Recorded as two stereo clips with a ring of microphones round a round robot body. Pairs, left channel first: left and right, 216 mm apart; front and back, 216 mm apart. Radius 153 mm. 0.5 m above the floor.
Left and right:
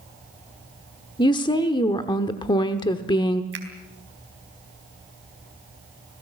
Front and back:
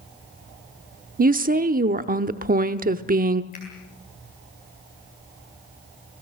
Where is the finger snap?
65° right, 3.5 m.